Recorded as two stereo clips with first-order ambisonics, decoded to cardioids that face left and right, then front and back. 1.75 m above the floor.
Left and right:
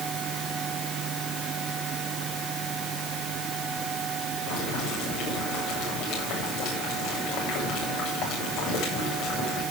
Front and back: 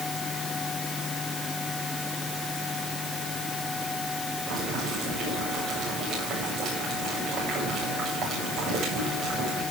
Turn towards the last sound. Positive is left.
turn(degrees=125)